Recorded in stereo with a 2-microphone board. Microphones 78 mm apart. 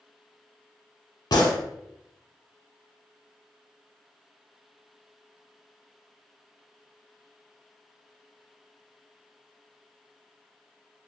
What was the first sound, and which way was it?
A gunshot, 65° left (ahead or behind).